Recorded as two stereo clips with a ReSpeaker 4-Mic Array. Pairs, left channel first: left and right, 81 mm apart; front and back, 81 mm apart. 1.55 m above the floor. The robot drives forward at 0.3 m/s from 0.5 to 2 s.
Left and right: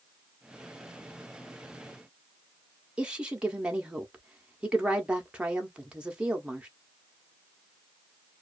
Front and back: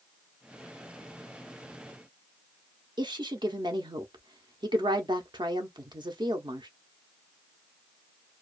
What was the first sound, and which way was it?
A woman speaking, 170° right.